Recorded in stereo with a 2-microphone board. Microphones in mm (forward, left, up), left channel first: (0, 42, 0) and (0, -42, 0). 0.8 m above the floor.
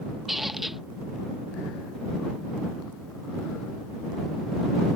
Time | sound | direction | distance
0.3 | a squeak | centre (ahead or behind) | ?